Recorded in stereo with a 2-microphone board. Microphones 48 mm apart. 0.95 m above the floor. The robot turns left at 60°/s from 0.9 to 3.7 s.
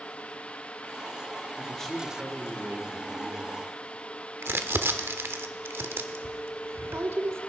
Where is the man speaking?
25° left, 2 m; by 3.6 s 95° right, 2 m.